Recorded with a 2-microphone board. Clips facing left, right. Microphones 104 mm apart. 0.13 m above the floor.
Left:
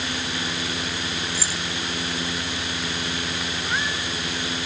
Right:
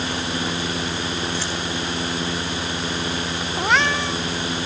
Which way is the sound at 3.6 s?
85° right.